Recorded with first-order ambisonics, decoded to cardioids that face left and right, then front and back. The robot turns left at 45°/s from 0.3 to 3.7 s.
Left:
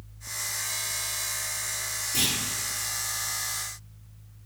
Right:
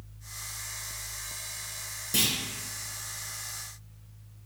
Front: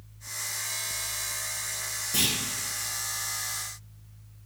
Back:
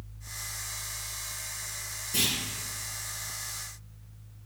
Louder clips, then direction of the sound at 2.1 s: Even, front 1 dB; 80° right.